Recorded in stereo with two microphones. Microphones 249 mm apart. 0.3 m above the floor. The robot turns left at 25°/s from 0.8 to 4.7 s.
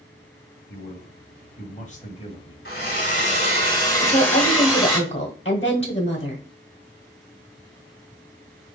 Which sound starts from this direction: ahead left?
A hair dryer, at 2.6 s.